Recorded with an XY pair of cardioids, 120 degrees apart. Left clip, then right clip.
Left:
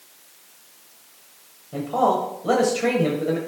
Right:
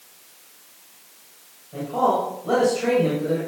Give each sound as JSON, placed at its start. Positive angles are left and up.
{"t": 1.7, "sound": "a man speaking", "azimuth_deg": 55, "distance_m": 1.9}